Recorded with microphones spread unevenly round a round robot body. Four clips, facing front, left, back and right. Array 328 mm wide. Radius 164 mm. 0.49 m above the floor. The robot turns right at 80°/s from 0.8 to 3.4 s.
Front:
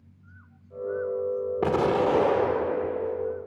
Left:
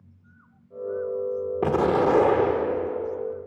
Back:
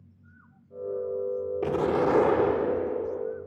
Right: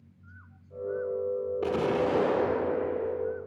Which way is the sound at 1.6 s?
55° left.